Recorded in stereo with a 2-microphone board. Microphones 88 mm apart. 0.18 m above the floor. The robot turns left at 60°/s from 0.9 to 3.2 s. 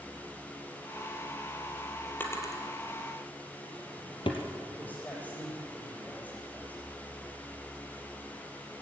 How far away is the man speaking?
About 8.5 m.